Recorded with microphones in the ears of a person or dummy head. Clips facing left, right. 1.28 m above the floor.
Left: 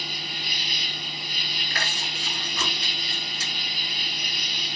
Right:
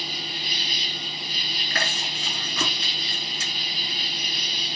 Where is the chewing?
60° right (ahead or behind), 3.5 m.